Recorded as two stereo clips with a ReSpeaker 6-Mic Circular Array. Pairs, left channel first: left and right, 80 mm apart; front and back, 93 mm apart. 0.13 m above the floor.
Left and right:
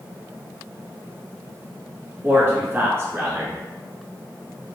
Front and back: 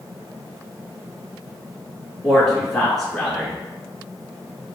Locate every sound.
2.2 s a man speaking: 85° right, 1.1 m